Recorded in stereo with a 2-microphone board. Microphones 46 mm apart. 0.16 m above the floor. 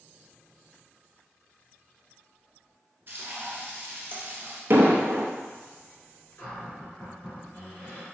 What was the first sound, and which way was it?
Frying, 50° right (ahead or behind).